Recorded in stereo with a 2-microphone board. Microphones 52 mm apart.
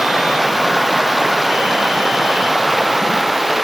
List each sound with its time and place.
0.0 s running water: 5° right (ahead or behind)